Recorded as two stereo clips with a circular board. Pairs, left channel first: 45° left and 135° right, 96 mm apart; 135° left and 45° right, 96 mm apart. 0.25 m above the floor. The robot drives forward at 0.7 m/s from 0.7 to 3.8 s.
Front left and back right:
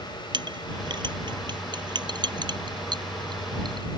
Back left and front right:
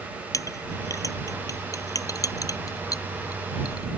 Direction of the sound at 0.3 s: 170° right.